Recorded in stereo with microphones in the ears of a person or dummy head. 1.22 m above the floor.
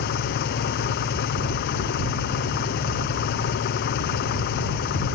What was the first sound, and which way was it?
An engine running, 55° left (ahead or behind).